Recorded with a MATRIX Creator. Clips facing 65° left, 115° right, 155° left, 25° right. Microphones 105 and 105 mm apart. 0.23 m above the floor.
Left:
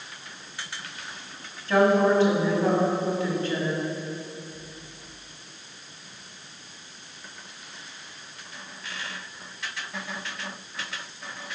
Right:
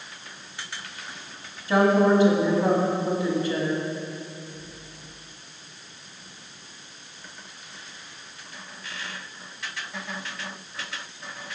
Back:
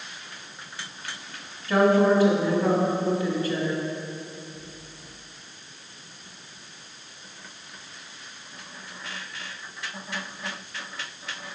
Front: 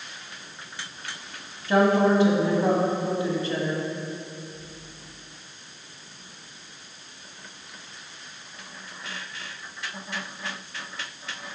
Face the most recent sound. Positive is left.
turn(degrees=-50)